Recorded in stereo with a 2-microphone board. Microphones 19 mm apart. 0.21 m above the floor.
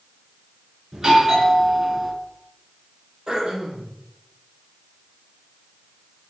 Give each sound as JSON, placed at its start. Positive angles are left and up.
{"t": 0.9, "sound": "a doorbell", "side_deg": -30, "distance_m": 3.5}
{"t": 3.3, "sound": "throat clearing", "side_deg": -40, "distance_m": 4.5}